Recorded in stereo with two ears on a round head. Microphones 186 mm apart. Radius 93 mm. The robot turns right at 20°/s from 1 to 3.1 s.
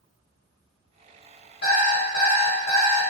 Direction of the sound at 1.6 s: 45° left (ahead or behind).